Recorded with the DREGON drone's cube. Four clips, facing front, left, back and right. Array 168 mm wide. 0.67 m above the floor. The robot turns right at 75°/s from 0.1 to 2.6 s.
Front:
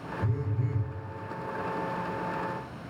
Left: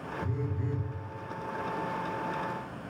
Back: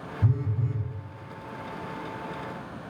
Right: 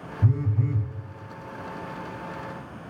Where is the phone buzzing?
135° right, 1.1 m; by 0.9 s 85° right, 1.1 m.